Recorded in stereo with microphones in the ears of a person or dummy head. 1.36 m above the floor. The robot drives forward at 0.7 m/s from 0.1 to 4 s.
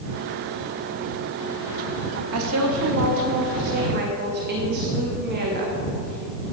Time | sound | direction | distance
2.3 | a woman speaking | 85° right | 1.6 m